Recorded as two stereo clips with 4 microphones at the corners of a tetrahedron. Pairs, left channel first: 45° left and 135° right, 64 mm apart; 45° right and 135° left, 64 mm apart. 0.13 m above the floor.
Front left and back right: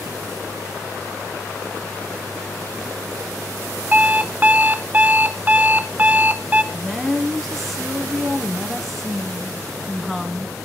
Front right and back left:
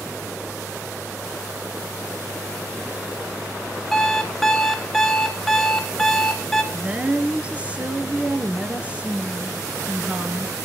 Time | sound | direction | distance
3.9 | an alarm clock | 125° right | 0.8 m
6.7 | a woman speaking | 130° left | 1.1 m